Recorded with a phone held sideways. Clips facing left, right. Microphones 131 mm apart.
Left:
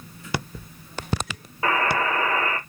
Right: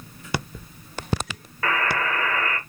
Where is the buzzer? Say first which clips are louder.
Left 2 dB; 20° left (ahead or behind), 1.3 m.